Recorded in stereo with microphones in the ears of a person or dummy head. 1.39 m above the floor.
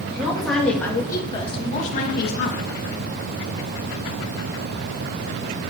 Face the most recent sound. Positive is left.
turn(degrees=65)  # may be behind; listen again after turning